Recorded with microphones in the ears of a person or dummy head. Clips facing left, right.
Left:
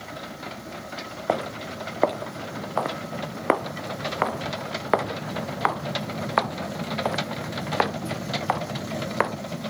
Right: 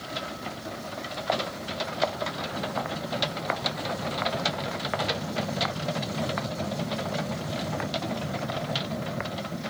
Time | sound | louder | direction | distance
1.3 | footsteps | left 4 dB | 55° left (ahead or behind) | ?